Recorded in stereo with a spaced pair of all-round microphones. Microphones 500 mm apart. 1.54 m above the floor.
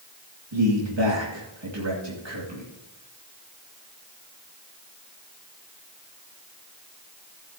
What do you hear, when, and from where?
0.5 s a man speaking: 55° right (ahead or behind), 2 m